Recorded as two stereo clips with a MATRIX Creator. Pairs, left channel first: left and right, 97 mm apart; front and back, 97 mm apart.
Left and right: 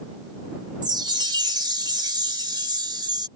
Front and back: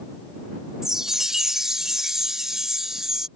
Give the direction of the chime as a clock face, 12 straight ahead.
3 o'clock.